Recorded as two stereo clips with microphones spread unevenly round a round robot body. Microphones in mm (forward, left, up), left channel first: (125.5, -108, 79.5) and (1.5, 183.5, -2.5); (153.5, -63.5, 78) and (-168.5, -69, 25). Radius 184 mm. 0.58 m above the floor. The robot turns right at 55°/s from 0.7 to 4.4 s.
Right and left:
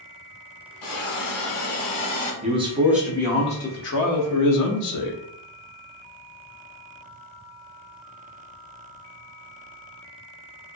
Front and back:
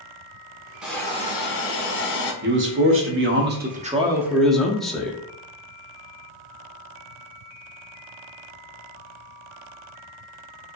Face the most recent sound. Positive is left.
turn(degrees=-95)